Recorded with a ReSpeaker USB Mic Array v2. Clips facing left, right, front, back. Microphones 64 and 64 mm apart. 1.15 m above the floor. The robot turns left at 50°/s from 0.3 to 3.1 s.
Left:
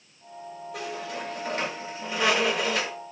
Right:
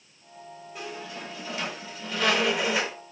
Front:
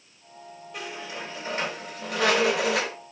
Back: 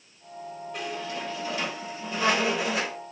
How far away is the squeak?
About 3 m.